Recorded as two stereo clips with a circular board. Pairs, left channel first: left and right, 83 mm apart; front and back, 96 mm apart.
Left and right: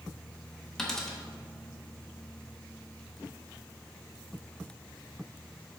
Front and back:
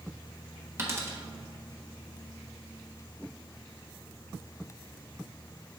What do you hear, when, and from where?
0.8 s a dropped coin: 170° left, 1.1 m